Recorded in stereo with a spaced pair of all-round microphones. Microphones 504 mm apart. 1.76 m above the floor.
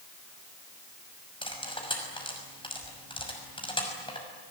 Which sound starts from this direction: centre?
Cutlery clinking, at 1.4 s.